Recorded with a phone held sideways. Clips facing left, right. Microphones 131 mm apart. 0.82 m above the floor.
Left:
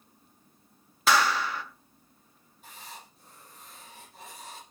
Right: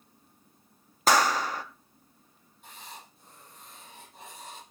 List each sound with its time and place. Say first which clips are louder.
1.1 s a clap: right 1 dB; 40° right (ahead or behind), 1.0 m
2.6 s writing: even; centre (ahead or behind), 7 m